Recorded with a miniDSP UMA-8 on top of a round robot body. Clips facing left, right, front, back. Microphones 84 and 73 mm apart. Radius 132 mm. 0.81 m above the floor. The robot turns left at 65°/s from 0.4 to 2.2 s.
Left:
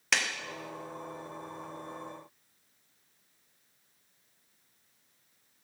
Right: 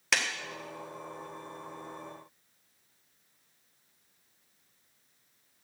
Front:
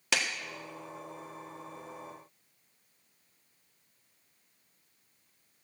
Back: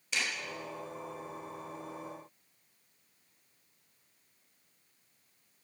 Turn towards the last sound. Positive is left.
turn(degrees=-120)